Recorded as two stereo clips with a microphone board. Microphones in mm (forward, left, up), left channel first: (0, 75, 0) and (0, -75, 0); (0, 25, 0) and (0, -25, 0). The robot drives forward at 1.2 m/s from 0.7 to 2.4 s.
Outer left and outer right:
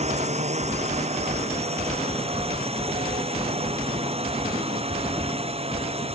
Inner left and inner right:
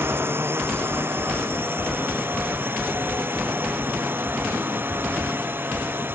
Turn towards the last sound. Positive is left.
turn(degrees=-40)  # may be behind; listen again after turning